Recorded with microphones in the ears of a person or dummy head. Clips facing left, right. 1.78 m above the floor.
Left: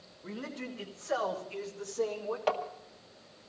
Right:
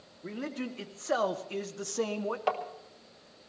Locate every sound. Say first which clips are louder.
0.2 s a man speaking: right 4 dB; 30° right (ahead or behind), 2 m; by 2.4 s 85° right, 1.8 m
2.5 s tapping: left 1 dB; centre (ahead or behind), 1.9 m